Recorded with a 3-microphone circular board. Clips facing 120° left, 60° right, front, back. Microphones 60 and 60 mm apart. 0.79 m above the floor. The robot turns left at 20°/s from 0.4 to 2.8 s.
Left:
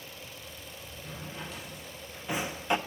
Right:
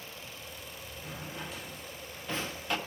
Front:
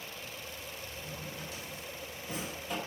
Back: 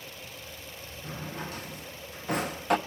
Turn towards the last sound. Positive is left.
turn(degrees=-175)